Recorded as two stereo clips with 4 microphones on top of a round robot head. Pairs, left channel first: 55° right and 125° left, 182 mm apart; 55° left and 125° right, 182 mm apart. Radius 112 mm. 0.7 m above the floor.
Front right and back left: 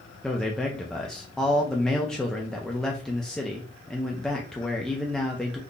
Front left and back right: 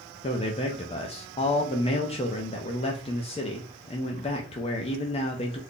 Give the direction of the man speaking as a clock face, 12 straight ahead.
11 o'clock.